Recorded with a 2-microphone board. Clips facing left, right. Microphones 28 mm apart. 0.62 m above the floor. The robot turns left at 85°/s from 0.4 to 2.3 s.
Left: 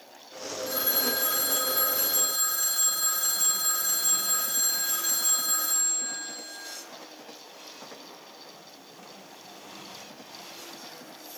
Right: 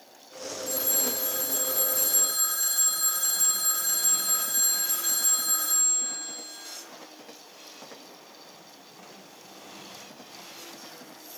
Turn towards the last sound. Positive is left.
turn(degrees=5)